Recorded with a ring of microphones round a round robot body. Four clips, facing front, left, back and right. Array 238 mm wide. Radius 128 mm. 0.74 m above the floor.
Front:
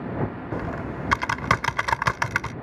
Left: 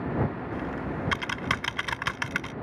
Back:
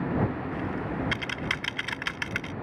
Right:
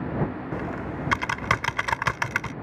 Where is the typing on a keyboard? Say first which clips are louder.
Right 1 dB, front 1 dB; 30° right.